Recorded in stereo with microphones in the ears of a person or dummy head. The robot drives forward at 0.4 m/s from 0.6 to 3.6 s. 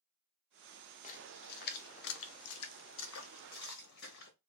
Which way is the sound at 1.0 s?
45° left (ahead or behind).